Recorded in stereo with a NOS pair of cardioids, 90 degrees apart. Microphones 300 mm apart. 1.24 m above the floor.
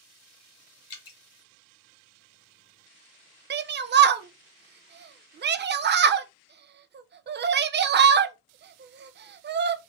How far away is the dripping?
About 1.2 m.